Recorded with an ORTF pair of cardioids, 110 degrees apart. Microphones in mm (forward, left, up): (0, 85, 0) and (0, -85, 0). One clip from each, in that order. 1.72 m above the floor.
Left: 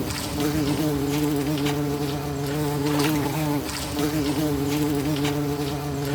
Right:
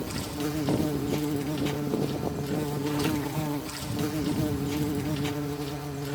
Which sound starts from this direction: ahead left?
An insect, at 0.0 s.